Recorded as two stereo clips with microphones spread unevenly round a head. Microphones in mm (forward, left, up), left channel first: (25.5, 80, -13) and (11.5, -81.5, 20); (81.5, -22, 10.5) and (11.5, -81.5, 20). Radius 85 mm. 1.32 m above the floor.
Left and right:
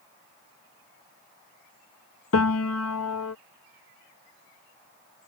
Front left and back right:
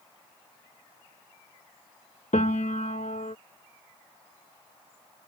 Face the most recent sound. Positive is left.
turn(degrees=95)